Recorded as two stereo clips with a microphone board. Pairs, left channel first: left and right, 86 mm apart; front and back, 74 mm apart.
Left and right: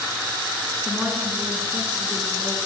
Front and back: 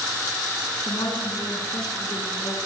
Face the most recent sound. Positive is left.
turn(degrees=-15)